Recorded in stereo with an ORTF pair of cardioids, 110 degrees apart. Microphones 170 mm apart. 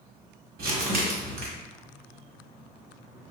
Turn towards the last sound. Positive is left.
turn(degrees=-65)